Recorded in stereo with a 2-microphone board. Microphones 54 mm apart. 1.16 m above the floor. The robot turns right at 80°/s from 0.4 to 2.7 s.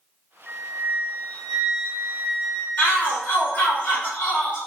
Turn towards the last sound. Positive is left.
turn(degrees=35)  # may be behind; listen again after turning